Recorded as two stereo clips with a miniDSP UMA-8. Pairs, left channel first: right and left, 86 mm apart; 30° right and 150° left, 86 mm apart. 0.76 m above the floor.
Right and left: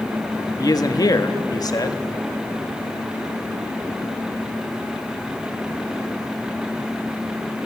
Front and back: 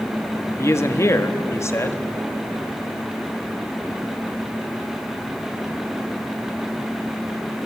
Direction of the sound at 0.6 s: 75° right.